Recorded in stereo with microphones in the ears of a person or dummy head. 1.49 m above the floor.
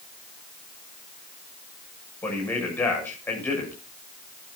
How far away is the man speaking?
About 7.5 m.